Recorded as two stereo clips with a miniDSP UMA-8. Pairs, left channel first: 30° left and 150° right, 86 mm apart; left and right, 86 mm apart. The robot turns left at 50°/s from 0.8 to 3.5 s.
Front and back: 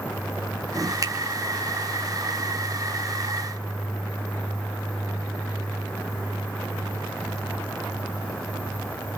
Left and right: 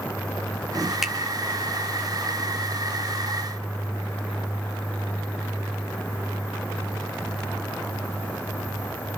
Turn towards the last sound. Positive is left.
turn(degrees=60)